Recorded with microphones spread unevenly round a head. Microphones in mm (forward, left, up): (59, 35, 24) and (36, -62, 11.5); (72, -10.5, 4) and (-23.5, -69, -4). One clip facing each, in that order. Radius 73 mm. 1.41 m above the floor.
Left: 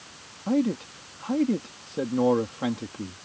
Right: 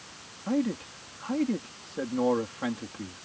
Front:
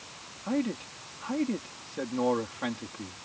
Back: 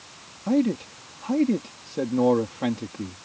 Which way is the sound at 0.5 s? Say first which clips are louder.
Left 4 dB, back 8 dB; 150° left.